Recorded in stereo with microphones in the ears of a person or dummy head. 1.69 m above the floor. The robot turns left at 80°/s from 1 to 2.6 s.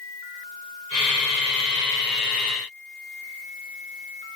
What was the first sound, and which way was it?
Only background noise.